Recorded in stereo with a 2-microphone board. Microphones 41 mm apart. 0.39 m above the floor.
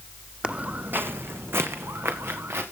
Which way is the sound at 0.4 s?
30° right (ahead or behind).